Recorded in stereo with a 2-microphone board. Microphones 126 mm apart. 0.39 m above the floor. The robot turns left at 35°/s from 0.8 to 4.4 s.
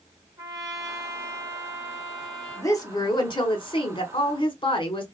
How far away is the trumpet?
About 0.9 m.